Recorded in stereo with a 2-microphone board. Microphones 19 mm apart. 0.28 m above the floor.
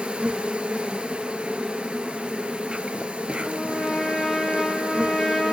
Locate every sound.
0.0 s an insect: 70° right (ahead or behind), 1.1 m
3.5 s a trumpet: 10° left (ahead or behind), 2.5 m